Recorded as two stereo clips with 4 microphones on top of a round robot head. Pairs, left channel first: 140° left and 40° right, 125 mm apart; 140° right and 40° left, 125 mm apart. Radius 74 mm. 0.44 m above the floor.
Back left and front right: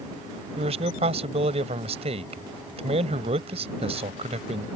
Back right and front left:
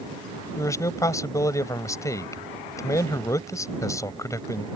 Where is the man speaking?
75° right.